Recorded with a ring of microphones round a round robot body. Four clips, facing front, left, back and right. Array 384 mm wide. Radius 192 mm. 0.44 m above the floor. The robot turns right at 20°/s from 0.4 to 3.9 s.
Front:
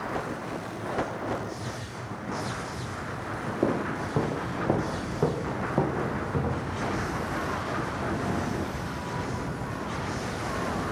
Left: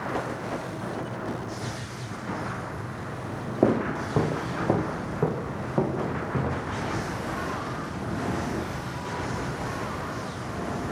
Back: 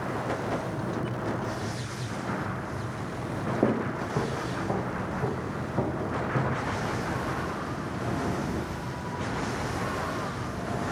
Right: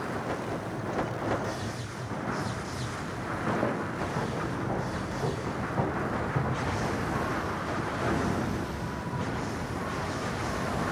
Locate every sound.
3.6 s footsteps: 95° left, 0.5 m; by 6.8 s 45° left, 2.0 m